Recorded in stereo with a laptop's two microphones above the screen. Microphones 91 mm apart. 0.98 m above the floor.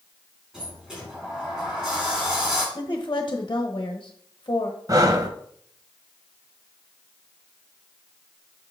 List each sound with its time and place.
0.5 s a sliding door: 5° right (ahead or behind), 3 m
2.8 s a woman speaking: 45° left (ahead or behind), 1.0 m
4.9 s breathing: 40° right (ahead or behind), 1.0 m